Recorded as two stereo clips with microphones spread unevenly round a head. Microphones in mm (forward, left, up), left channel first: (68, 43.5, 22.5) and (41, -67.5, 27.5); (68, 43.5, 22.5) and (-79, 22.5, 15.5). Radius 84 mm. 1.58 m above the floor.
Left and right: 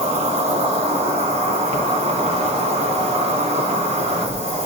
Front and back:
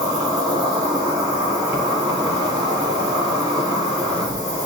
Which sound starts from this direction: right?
An insect, at 0.0 s.